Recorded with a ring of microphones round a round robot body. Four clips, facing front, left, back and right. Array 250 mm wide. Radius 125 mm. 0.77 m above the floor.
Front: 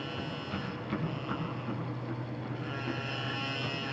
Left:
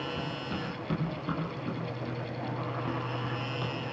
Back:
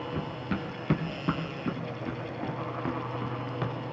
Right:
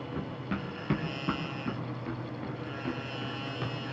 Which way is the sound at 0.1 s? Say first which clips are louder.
Left 1 dB, back 4 dB; 160° right.